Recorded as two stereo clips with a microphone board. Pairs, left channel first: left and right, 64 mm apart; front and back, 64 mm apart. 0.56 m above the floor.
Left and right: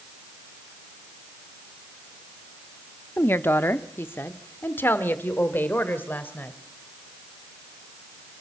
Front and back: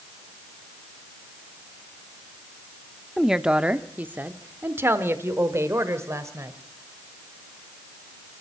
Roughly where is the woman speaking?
Left.